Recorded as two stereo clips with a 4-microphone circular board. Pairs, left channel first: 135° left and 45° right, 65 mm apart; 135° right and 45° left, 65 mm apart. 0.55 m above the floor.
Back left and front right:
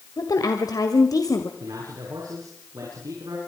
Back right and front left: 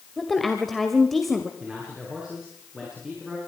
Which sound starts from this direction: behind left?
A woman speaking, at 0.2 s.